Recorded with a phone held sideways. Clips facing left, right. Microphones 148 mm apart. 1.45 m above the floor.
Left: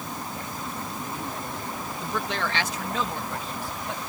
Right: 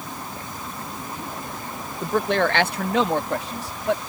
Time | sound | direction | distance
2.0 | a man speaking | 45° right (ahead or behind) | ?